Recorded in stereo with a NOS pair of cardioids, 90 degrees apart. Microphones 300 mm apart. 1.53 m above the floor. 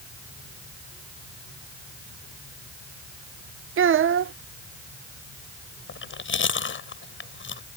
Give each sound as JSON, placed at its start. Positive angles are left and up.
{"t": 3.8, "sound": "a child speaking", "azimuth_deg": -45}
{"t": 5.9, "sound": "chewing", "azimuth_deg": 40}